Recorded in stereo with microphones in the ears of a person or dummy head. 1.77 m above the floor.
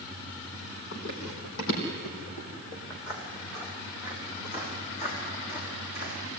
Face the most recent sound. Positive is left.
turn(degrees=55)  # may be behind; listen again after turning